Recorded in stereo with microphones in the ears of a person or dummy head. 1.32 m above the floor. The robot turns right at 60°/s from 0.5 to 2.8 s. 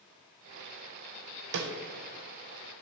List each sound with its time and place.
1.5 s a snare drum: 55° right (ahead or behind), 0.6 m; by 1.7 s 60° right (ahead or behind), 0.6 m